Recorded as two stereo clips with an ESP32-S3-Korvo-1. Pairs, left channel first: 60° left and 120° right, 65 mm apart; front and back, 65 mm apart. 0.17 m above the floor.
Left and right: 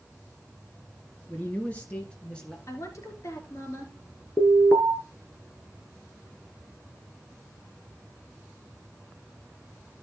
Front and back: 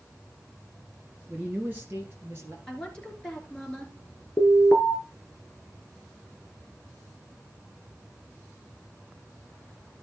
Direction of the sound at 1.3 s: 115° left.